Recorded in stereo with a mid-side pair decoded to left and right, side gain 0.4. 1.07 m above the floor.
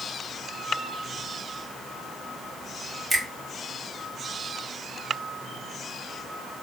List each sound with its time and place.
3.1 s a finger snap: 30° right, 1.5 m